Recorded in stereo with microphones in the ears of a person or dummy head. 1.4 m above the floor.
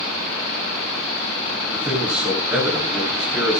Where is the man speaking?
10° right (ahead or behind), 8.5 m.